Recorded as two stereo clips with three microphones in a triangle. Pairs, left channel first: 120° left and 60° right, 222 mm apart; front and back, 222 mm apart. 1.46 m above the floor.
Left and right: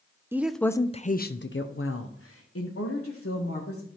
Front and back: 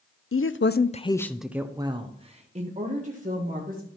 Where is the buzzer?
I don't hear a buzzer.